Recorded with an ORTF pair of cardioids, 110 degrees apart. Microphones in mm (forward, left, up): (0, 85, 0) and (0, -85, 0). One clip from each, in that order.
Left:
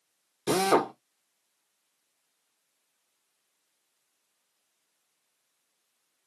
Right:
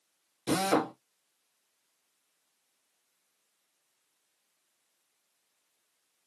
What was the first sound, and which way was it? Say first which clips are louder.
A drill: left 4 dB; 25° left.